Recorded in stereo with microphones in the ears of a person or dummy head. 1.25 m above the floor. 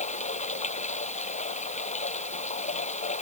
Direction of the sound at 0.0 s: 30° left (ahead or behind).